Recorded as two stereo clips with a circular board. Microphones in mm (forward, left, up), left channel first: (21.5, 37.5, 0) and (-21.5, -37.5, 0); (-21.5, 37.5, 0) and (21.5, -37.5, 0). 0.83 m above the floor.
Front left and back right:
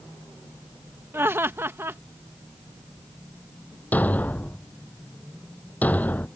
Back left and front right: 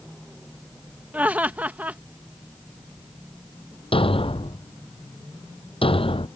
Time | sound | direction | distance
1.1 | laughter | 115° right | ?
3.9 | a thud | 130° left | ?